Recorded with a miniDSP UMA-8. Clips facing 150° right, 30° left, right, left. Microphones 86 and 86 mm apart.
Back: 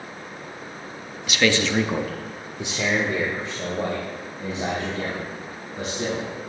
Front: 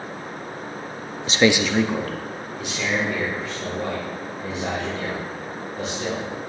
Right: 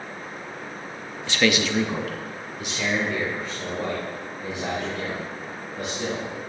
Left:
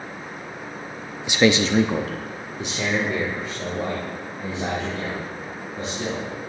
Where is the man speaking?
25° left, 0.6 m; by 6.2 s 155° left, 5 m.